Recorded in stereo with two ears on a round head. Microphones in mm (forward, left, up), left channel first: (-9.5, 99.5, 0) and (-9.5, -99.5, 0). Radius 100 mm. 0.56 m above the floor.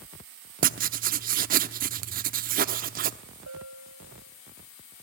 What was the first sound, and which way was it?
Writing, 40° right (ahead or behind).